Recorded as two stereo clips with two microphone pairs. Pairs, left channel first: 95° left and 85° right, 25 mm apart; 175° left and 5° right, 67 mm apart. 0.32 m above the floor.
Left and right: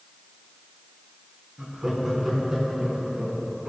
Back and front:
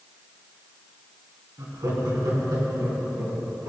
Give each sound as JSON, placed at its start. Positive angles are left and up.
{"t": 1.6, "sound": "laughter", "azimuth_deg": -10, "distance_m": 3.0}